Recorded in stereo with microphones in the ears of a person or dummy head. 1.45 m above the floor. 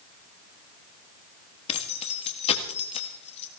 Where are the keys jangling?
35° left (ahead or behind), 1.8 m.